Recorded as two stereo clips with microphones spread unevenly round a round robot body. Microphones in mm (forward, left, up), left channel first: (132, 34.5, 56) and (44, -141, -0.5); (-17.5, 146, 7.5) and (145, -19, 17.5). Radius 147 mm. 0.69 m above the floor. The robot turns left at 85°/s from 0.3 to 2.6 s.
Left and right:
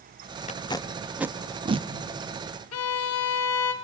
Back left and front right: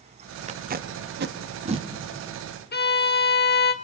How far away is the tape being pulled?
About 1.1 m.